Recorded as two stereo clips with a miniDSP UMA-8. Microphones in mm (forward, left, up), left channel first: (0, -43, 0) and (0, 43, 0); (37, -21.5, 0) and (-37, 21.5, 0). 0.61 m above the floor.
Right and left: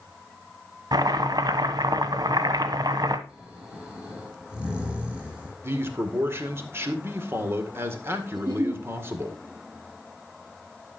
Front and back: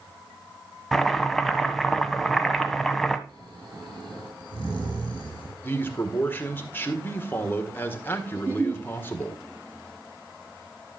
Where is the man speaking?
35° left, 1.8 m.